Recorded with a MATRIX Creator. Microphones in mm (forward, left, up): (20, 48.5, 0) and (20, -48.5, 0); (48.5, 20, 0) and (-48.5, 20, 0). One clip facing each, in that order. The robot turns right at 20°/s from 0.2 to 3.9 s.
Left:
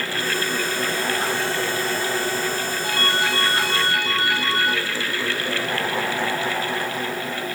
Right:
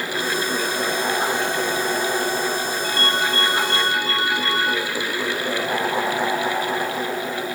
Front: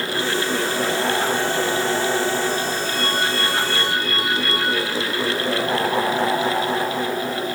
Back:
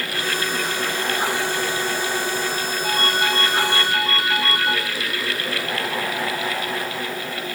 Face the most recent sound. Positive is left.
turn(degrees=180)